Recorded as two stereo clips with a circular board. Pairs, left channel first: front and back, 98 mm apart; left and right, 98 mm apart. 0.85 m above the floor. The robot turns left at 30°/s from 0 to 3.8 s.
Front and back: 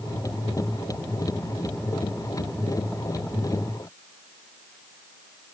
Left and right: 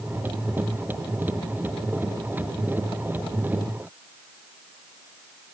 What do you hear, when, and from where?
Only background noise.